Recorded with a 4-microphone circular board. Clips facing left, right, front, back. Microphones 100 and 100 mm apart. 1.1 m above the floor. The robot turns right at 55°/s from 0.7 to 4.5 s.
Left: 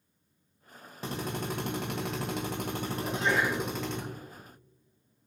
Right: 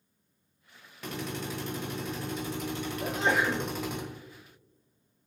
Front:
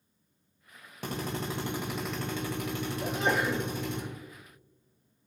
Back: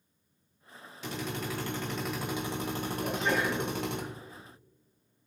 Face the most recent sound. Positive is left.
turn(degrees=30)